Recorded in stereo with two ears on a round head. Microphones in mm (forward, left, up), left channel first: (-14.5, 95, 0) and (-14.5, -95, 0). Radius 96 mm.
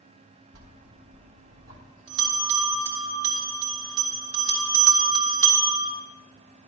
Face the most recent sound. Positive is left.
turn(degrees=-75)  # may be behind; listen again after turning